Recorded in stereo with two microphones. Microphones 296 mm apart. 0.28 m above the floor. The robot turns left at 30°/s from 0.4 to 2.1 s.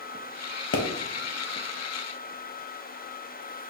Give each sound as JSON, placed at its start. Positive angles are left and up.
{"t": 0.7, "sound": "a pop", "side_deg": 45, "distance_m": 0.7}